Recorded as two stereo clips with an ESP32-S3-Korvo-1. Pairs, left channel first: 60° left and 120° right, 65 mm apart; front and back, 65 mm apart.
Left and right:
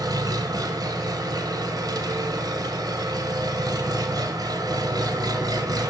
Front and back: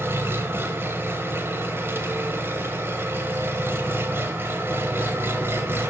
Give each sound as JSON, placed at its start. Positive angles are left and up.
{"t": 0.0, "sound": "an engine running", "azimuth_deg": -125, "distance_m": 0.9}